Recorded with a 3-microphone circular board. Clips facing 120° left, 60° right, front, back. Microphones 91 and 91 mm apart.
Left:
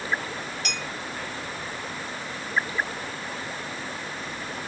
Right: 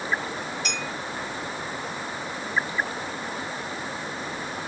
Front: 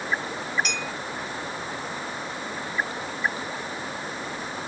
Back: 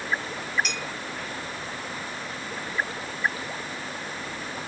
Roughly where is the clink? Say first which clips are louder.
Right 2 dB, front 2 dB; left.